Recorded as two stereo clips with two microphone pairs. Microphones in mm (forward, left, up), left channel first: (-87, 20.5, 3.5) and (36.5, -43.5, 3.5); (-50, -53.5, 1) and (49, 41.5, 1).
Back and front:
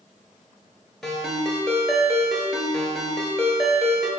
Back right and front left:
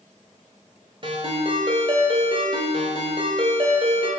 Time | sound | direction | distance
1.0 | a ringtone | 65° left | 0.7 m